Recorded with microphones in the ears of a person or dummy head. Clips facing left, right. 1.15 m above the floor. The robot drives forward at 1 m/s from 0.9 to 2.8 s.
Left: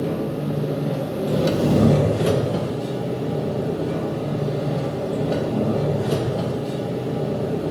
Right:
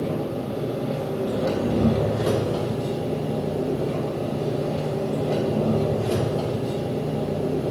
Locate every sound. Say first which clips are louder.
0.0 s an engine running: left 2 dB; 20° left (ahead or behind), 1.0 m; by 7.7 s 15° left (ahead or behind), 1.0 m